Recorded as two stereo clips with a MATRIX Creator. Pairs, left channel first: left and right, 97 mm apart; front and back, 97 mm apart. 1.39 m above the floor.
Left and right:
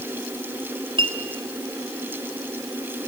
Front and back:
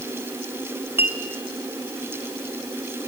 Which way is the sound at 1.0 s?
110° right.